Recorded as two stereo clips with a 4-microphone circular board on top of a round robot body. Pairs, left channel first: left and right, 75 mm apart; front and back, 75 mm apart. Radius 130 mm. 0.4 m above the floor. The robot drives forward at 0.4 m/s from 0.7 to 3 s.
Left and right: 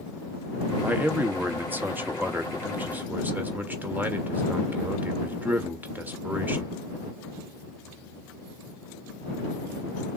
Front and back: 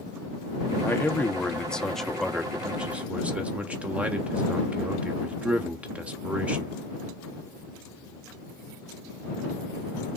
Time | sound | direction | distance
0.8 | a man speaking | 40° right | 1.2 m